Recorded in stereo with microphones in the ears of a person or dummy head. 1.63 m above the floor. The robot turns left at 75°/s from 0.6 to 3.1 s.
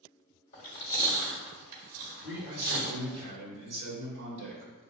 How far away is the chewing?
About 1.4 m.